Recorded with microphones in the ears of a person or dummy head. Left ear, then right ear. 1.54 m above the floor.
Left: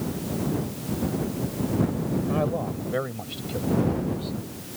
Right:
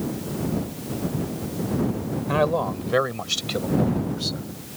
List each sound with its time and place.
2.3 s a man speaking: 80° right; by 4.5 s 70° right (ahead or behind)